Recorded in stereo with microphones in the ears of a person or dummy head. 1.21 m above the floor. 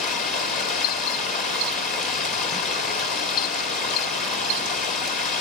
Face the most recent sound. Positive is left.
turn(degrees=40)  # may be behind; listen again after turning